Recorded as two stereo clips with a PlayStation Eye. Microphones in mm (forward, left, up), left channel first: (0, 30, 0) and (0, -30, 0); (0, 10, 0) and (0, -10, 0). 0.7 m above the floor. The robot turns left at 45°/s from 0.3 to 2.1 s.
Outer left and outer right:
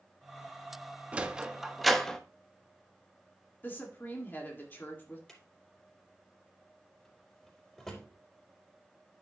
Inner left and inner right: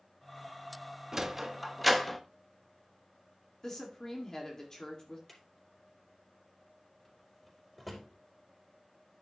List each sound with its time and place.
1.1 s a sliding door: 20° right (ahead or behind), 1.0 m; by 2.2 s 10° left (ahead or behind), 1.0 m
3.6 s a woman speaking: 35° left (ahead or behind), 2.0 m
5.3 s a drawer: 10° left (ahead or behind), 4 m